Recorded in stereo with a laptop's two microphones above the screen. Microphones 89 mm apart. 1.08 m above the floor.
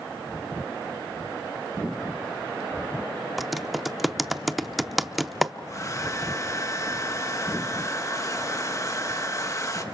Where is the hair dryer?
35° left (ahead or behind), 1.4 m.